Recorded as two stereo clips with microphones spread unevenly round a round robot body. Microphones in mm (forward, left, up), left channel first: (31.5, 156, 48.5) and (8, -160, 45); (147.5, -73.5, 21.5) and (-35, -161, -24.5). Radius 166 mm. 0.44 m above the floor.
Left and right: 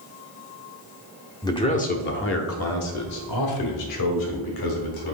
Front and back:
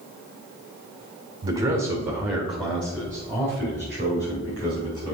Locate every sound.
1.4 s a man speaking: 160° left, 0.9 m; by 5.1 s 105° left, 2.5 m